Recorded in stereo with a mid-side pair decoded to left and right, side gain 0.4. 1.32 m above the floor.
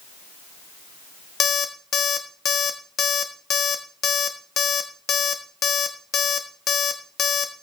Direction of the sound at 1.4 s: 65° left.